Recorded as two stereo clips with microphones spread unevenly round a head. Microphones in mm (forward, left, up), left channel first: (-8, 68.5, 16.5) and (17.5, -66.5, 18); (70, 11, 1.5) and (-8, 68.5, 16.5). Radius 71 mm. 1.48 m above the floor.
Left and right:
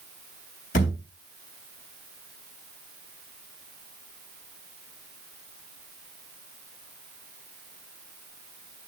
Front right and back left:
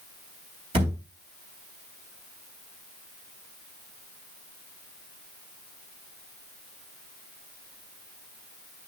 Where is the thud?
135° left, 3.5 m.